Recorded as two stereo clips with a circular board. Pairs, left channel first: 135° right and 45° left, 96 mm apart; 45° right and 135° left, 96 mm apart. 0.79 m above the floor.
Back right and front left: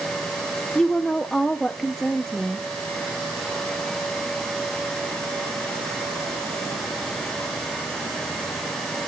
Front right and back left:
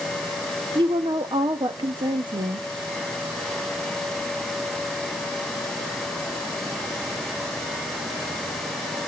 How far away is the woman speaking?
About 0.7 m.